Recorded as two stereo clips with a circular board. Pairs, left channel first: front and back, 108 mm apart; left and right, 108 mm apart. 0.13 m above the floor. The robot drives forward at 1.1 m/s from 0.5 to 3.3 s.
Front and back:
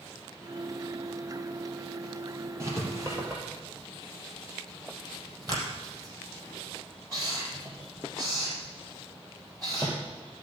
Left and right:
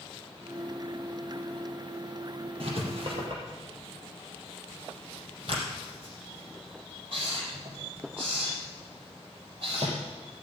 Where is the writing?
115° right, 4 m; by 9.9 s 125° right, 4.5 m.